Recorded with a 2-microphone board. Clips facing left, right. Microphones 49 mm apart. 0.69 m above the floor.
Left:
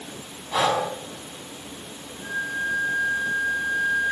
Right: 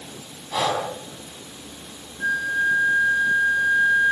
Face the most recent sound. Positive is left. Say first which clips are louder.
# right 6 dB
turn(degrees=-80)